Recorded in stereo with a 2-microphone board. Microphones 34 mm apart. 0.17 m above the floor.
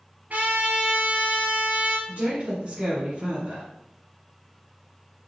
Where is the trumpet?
60° right (ahead or behind), 1.5 m.